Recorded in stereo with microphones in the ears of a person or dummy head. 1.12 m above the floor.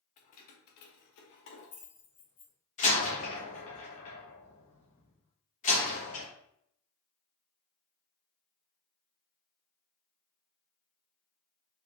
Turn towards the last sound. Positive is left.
turn(degrees=40)  # may be behind; listen again after turning